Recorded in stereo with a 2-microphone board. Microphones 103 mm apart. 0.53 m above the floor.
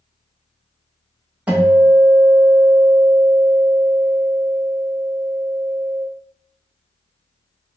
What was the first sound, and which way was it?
A guitar, 10° right (ahead or behind).